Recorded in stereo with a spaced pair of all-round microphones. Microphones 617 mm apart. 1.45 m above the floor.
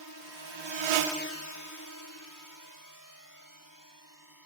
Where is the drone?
35° right (ahead or behind); by 4.5 s 30° left (ahead or behind).